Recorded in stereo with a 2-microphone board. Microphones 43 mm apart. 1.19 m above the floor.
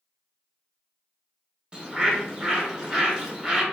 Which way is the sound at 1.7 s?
20° right (ahead or behind).